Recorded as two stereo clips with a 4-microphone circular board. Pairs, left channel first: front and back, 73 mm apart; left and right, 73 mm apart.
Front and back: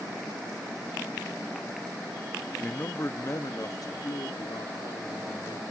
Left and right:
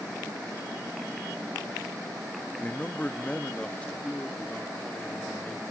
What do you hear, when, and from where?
2.6 s a man speaking: 45° left, 0.6 m; by 5.6 s 15° left, 1.8 m